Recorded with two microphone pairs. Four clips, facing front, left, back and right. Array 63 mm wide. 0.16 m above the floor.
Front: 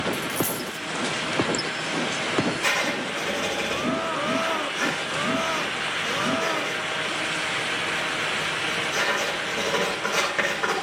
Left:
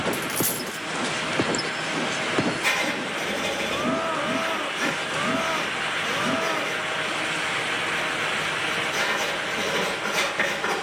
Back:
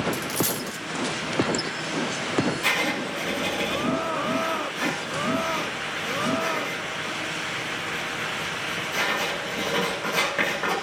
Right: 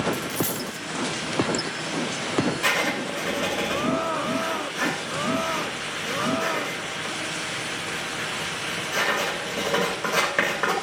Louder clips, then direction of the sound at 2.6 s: Right 1 dB, even; 80° right.